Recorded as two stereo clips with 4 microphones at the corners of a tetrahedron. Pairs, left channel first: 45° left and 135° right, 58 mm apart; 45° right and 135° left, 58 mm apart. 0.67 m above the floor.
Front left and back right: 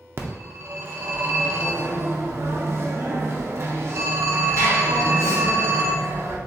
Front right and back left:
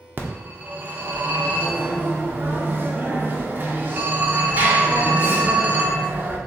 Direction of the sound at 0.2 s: 175° right.